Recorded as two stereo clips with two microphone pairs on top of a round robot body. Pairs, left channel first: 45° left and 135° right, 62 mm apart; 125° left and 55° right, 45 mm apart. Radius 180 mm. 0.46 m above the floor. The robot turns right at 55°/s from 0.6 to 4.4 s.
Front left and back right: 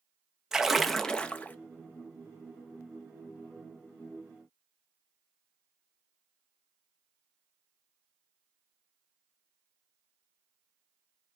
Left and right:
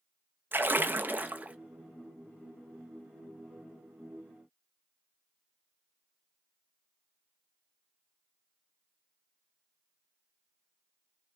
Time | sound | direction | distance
0.5 | a splash | 55° right | 0.8 m